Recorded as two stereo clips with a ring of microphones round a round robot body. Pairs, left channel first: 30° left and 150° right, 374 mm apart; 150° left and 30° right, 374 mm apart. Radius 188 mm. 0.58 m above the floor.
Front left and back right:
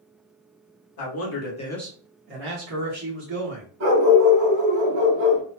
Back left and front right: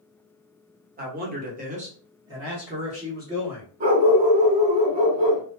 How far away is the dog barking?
About 1.4 m.